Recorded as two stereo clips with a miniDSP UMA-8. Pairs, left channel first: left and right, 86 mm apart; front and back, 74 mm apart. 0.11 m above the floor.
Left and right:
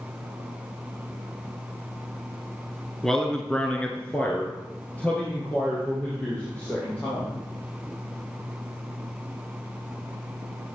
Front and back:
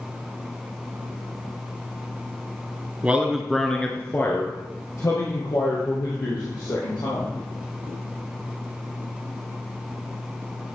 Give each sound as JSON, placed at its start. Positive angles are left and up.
{"t": 3.0, "sound": "a man speaking", "azimuth_deg": 170, "distance_m": 1.2}